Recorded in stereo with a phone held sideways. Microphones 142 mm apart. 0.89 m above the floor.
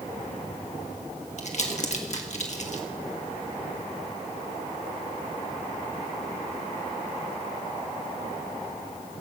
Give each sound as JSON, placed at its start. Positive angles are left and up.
{"t": 1.4, "sound": "crumpling", "side_deg": 55, "distance_m": 1.6}